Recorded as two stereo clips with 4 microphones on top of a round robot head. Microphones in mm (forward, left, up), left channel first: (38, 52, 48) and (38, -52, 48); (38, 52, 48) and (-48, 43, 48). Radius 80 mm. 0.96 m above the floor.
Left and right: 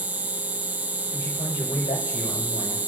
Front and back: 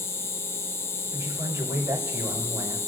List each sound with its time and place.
0.0 s an insect: 25° right, 0.8 m
1.1 s a man speaking: 140° left, 5.5 m